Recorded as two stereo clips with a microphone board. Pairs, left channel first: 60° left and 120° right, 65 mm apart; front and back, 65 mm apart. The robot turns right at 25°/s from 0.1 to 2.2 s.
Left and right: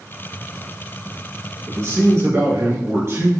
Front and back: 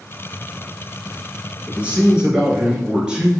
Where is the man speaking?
125° right, 1.9 m; by 3.3 s 110° right, 1.9 m.